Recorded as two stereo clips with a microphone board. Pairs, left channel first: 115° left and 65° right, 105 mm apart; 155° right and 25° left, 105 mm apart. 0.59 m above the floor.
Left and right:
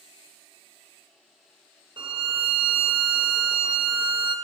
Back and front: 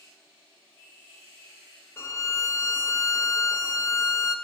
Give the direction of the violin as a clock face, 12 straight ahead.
3 o'clock.